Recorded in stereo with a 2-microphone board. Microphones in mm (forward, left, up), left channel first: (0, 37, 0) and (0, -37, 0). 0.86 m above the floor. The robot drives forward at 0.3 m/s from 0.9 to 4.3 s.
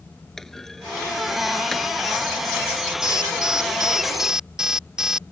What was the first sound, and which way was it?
A clunk, 5° left (ahead or behind).